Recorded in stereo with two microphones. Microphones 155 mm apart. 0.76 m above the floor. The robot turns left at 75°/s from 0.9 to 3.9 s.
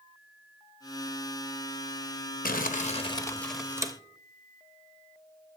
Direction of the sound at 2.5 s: 85° left.